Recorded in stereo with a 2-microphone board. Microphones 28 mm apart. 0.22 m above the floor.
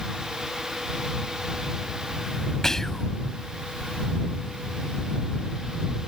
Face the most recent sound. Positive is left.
turn(degrees=15)  # may be behind; listen again after turning